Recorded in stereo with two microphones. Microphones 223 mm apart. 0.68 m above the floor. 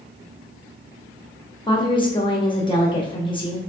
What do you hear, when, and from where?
1.7 s a woman speaking: 20° left (ahead or behind), 1.1 m